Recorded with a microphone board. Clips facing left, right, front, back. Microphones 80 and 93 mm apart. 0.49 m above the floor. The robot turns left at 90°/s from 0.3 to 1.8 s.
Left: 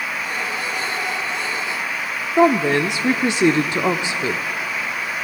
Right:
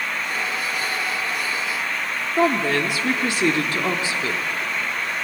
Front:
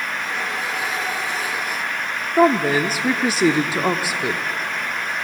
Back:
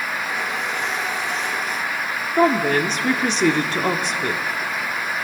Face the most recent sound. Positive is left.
turn(degrees=65)